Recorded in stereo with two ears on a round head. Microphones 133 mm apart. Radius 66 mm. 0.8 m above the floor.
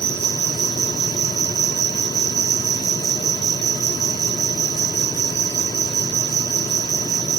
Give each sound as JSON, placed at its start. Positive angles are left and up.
{"t": 0.0, "sound": "an insect", "side_deg": -85}